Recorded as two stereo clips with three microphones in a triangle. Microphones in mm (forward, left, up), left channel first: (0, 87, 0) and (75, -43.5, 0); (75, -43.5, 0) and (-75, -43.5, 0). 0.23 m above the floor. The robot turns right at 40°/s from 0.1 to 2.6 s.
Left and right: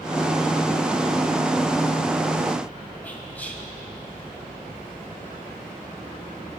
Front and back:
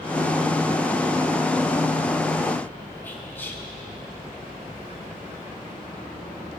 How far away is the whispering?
About 1.4 m.